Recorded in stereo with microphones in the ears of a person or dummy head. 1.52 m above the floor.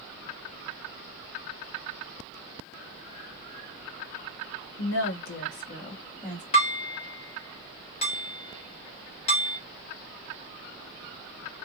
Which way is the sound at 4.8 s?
65° left (ahead or behind).